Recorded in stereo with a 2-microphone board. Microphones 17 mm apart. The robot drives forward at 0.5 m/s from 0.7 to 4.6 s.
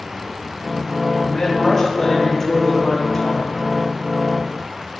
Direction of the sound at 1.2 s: 30° left (ahead or behind).